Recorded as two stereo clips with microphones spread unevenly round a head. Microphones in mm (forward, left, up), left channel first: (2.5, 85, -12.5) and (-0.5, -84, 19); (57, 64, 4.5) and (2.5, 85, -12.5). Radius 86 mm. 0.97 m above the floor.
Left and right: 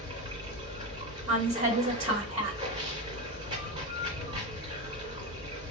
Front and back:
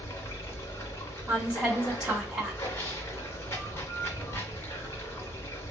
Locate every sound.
0.0 s running water: 30° right, 2 m
1.3 s a woman speaking: 110° right, 1.9 m